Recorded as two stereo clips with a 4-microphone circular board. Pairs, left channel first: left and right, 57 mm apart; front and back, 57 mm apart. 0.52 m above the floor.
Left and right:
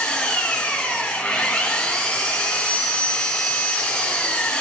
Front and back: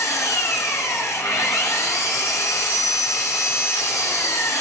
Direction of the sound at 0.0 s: 20° left.